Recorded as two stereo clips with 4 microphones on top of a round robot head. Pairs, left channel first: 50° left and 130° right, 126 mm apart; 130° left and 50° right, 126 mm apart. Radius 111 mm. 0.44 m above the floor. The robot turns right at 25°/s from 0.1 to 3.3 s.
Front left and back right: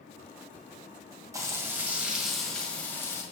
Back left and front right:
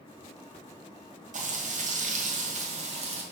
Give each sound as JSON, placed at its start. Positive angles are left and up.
{"t": 1.3, "sound": "frying", "azimuth_deg": -65, "distance_m": 2.0}